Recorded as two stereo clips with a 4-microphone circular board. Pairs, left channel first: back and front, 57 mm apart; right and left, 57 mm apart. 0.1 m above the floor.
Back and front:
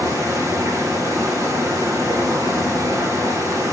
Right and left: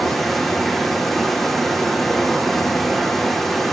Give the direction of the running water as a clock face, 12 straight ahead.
12 o'clock.